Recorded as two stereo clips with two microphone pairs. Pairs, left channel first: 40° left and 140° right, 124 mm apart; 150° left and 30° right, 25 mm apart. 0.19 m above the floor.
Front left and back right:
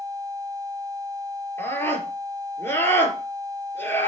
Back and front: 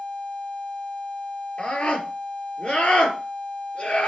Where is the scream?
110° left, 3.5 m.